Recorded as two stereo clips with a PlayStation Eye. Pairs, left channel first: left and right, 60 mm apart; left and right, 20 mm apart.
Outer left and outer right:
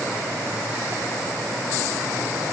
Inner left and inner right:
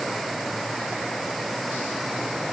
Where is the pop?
No pop in this recording.